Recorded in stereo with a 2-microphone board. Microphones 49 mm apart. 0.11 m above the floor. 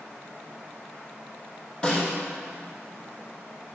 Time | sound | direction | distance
1.8 | a snare drum | 20° left (ahead or behind) | 3.5 m